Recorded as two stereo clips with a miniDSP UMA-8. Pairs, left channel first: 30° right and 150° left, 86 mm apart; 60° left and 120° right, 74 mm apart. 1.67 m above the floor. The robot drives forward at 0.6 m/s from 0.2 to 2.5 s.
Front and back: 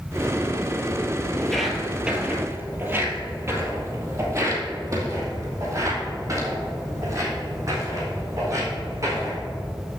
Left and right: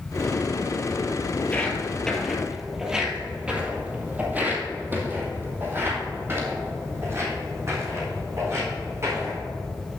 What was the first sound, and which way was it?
Footsteps, 45° left.